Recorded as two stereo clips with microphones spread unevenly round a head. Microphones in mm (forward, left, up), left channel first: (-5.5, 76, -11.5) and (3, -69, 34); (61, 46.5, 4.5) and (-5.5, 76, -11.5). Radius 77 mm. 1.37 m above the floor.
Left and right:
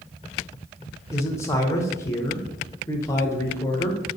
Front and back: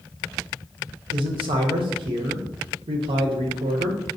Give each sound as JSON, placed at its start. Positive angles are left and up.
{"t": 1.1, "sound": "a man speaking", "azimuth_deg": 170, "distance_m": 0.5}